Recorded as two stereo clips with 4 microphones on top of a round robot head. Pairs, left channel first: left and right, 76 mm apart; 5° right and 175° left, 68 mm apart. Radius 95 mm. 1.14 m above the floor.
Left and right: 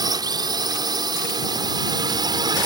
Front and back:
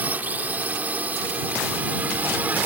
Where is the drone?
115° right.